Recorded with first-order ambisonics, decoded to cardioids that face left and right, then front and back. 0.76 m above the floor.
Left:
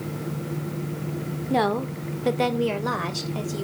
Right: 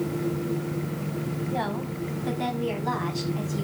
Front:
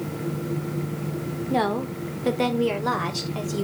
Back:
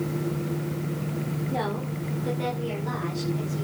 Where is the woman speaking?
60° left, 1.9 m; by 3.6 s 40° left, 3.5 m.